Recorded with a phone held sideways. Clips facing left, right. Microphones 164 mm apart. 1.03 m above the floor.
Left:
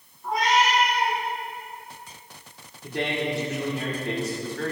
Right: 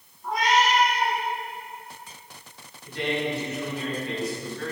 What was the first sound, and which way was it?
A cat meowing, centre (ahead or behind).